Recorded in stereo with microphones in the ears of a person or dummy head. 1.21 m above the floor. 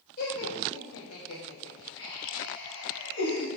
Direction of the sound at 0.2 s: 50° left (ahead or behind).